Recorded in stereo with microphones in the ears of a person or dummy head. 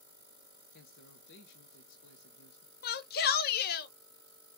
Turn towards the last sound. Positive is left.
turn(degrees=50)  # may be behind; listen again after turning